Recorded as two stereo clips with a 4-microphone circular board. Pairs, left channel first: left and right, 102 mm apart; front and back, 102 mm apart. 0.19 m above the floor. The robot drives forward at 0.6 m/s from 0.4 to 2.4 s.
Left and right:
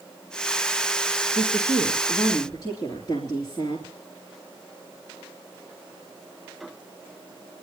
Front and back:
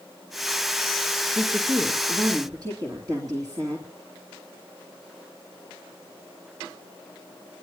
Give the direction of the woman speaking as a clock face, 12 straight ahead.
8 o'clock.